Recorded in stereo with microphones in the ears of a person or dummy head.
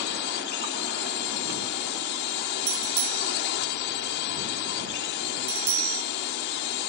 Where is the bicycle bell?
75° right (ahead or behind).